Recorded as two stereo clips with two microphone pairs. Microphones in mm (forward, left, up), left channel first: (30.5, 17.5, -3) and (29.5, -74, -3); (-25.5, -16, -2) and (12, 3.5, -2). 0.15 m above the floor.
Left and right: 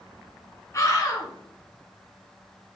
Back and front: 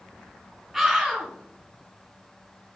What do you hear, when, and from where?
0.7 s a scream: 110° left, 1.8 m